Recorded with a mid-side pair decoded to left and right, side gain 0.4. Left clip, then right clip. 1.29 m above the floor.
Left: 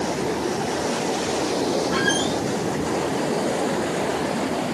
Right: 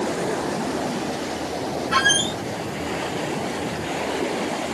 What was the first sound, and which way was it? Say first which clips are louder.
A squeak: right 3 dB; 60° right.